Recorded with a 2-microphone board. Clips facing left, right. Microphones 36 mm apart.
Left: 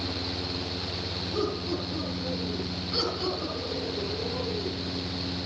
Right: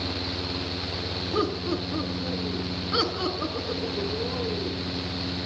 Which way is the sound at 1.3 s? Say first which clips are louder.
Right 3 dB; 50° right (ahead or behind).